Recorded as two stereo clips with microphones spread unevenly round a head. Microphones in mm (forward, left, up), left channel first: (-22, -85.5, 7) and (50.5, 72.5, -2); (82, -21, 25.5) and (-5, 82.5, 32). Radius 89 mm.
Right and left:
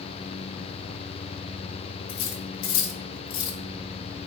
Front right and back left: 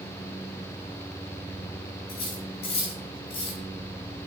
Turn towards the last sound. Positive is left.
turn(degrees=-110)